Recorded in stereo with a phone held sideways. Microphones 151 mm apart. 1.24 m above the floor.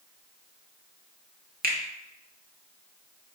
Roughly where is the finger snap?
Right.